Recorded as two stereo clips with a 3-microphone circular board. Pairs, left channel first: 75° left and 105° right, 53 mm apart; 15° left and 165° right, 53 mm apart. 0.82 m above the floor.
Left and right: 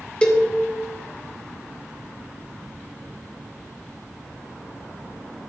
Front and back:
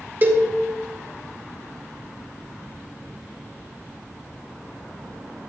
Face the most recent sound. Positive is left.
turn(degrees=145)